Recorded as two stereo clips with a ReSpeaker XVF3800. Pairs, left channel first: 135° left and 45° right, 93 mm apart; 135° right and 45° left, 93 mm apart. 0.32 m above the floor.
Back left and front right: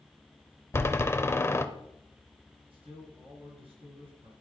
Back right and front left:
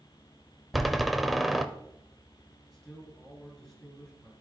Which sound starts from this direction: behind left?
A door slam, at 0.7 s.